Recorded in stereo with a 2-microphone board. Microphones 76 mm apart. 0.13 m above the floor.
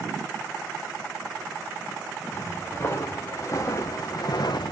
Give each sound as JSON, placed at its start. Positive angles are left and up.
{"t": 2.3, "sound": "footsteps", "side_deg": 35, "distance_m": 2.5}